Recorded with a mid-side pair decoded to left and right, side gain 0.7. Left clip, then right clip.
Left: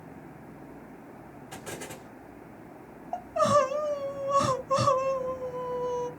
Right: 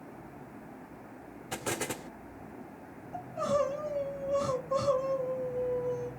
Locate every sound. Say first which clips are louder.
1.5 s an explosion: right 6 dB; 45° right, 0.5 m
3.1 s crying: left 7 dB; 65° left, 0.8 m